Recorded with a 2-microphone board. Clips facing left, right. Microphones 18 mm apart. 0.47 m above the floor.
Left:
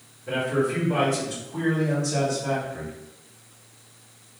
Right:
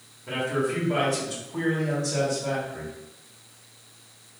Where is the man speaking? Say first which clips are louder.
Left 2 dB; 20° right (ahead or behind), 1.5 m; by 2.9 s 15° left (ahead or behind), 2.5 m.